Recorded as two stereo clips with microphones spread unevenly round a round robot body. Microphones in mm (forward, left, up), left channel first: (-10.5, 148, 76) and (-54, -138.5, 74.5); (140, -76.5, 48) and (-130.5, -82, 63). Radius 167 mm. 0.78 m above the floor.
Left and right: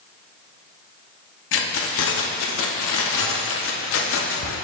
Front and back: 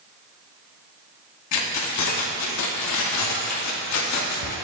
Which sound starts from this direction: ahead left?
Keys jangling, at 1.5 s.